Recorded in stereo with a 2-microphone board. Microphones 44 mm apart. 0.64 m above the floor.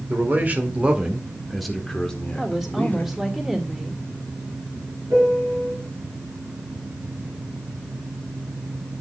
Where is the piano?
65° right (ahead or behind), 5.5 m.